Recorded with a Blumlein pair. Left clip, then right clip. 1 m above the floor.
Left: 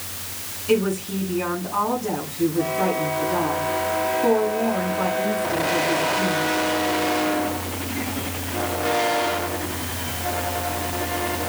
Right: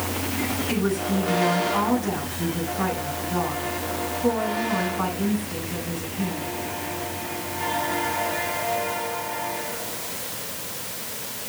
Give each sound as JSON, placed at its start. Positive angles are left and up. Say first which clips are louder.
{"t": 0.7, "sound": "a woman speaking", "louder": "left 8 dB", "azimuth_deg": 30, "distance_m": 7.0}